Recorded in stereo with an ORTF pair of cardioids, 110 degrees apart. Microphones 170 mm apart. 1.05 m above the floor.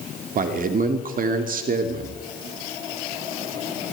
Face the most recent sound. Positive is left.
turn(degrees=-55)